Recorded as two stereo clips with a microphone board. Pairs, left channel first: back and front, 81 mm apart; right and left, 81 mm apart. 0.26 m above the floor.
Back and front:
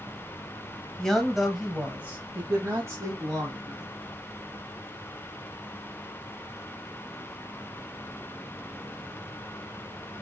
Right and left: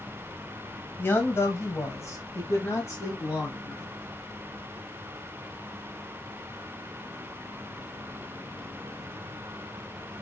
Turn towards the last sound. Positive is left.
turn(degrees=-40)